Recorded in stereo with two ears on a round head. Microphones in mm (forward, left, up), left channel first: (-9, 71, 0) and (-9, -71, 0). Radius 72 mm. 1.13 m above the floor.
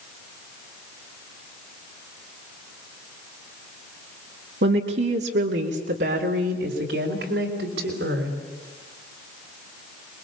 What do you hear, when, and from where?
4.6 s a woman speaking: 75° right (ahead or behind), 2 m; by 8.4 s 85° right, 5.5 m